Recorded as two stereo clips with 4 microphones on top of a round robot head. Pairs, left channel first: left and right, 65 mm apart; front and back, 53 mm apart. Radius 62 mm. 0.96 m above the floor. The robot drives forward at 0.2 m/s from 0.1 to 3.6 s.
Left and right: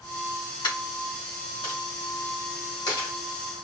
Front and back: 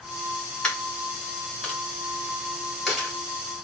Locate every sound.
0.6 s a dropped coin: 80° left, 1.6 m; by 3.1 s 95° left, 1.6 m